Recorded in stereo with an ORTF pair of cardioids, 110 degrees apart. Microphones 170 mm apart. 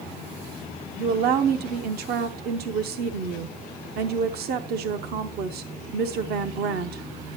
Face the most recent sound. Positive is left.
turn(degrees=-70)